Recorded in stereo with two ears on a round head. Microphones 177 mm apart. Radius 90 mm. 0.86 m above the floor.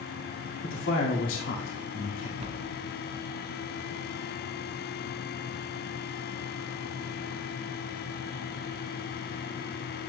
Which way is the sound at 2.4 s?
35° right (ahead or behind).